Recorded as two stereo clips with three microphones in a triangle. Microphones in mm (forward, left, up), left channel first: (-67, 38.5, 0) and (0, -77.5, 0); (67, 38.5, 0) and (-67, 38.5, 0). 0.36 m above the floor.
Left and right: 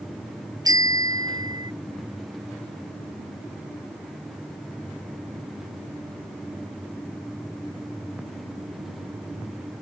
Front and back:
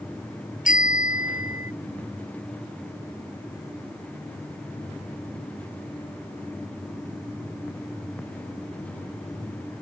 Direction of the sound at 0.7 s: Straight ahead.